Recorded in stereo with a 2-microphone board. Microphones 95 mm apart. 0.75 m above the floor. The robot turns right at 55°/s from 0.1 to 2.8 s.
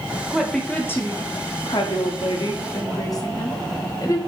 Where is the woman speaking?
5° right, 0.8 m; by 4.2 s 130° left, 0.8 m.